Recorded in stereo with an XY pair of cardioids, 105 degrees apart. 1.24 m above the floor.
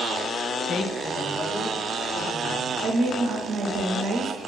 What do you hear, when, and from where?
0.7 s a woman speaking: 55° left, 0.5 m
2.8 s a woman speaking: 60° right, 0.9 m